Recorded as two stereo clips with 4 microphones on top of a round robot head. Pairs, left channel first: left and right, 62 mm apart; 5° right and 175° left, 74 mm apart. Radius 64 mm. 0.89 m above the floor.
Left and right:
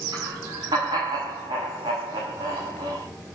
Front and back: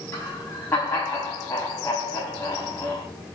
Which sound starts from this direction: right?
Laughter, at 0.1 s.